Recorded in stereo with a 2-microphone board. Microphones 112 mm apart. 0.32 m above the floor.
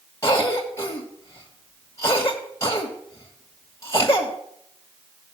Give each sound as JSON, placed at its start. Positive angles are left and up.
{"t": 0.2, "sound": "a cough", "side_deg": 30, "distance_m": 1.2}